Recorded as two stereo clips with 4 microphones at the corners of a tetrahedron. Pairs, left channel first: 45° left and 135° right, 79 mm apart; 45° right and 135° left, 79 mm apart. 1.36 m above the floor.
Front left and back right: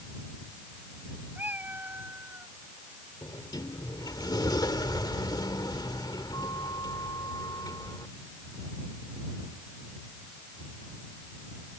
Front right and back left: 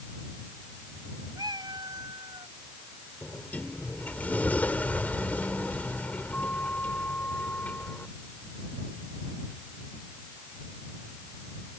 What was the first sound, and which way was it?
A cat meowing, 155° left.